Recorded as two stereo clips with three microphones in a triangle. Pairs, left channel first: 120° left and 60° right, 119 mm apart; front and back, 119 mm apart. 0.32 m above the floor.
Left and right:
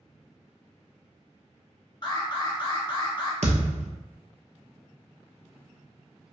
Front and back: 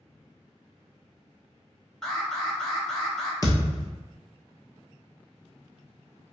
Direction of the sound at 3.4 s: 55° right.